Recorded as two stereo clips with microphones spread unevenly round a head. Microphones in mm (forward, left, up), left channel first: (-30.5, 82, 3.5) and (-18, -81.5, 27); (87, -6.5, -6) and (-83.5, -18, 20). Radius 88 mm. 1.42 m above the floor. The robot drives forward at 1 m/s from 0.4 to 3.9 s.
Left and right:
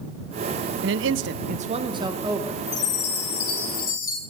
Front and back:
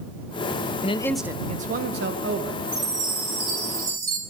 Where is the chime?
105° left, 2 m; by 4.2 s 130° left, 2.5 m.